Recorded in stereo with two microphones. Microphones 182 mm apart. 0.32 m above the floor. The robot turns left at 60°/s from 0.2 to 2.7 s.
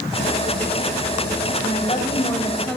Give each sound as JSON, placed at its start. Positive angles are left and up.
{"t": 1.6, "sound": "a woman speaking", "azimuth_deg": 70, "distance_m": 1.6}